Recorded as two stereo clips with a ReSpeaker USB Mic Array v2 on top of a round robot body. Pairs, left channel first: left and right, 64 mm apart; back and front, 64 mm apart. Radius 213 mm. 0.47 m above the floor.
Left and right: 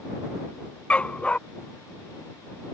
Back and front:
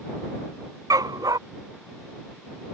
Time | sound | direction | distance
0.9 | a dog barking | 20° left | ?